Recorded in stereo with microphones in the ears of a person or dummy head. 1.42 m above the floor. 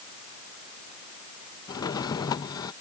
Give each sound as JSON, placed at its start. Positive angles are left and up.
{"t": 1.7, "sound": "a drawer", "side_deg": 20}